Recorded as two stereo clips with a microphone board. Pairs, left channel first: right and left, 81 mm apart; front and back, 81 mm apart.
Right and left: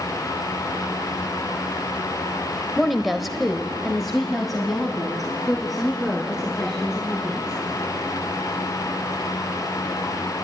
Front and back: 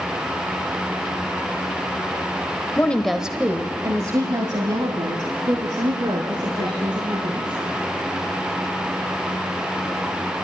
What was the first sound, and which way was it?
A woman speaking, straight ahead.